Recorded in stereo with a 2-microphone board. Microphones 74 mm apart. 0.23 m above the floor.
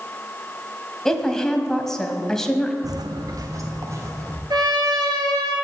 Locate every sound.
1.1 s a woman speaking: 5° left (ahead or behind), 1.1 m
2.8 s footsteps: 60° right (ahead or behind), 0.6 m; by 4.4 s 40° right (ahead or behind), 2.5 m
4.5 s a trumpet: 75° right (ahead or behind), 2 m